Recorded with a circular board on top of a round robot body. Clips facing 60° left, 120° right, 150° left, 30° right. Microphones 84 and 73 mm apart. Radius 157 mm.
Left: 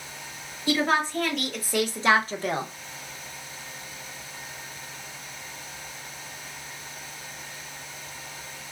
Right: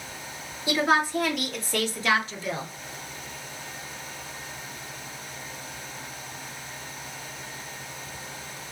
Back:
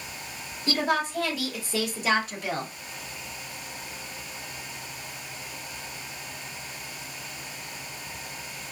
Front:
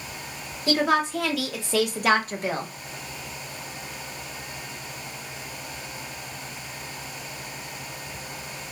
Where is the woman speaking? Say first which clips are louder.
Right 1 dB, front 4 dB; 45° right, 1.6 m; by 2.7 s 45° left, 0.8 m.